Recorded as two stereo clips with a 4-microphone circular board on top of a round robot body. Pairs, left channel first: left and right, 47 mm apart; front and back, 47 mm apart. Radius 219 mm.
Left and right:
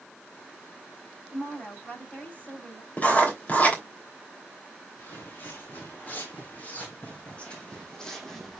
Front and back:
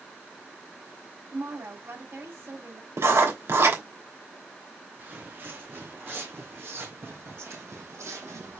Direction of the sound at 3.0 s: 150° left.